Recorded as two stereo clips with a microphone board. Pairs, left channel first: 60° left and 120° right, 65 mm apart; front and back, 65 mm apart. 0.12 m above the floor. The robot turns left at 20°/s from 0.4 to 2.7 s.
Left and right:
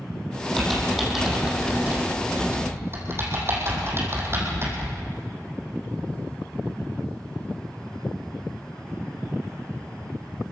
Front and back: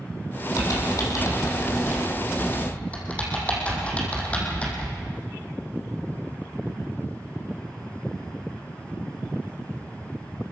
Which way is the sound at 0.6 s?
30° right.